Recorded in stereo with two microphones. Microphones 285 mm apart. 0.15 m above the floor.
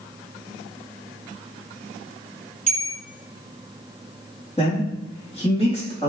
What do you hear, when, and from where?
2.7 s a bell: 25° left (ahead or behind), 1.0 m
4.6 s a man speaking: 25° left (ahead or behind), 5 m